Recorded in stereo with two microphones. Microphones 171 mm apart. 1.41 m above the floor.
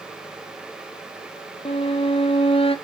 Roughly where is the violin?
Left.